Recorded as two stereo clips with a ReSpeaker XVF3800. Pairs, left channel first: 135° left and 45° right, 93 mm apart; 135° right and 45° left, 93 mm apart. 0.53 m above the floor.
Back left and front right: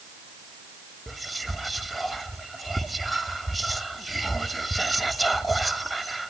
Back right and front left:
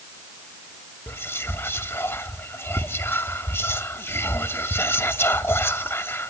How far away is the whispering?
About 0.7 m.